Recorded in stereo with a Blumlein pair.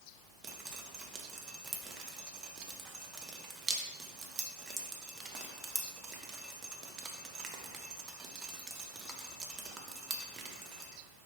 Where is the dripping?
25° right, 0.5 m.